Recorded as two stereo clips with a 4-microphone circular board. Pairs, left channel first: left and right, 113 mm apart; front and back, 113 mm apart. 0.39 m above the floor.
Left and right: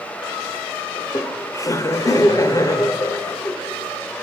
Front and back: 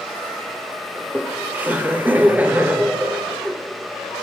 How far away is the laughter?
About 1.1 m.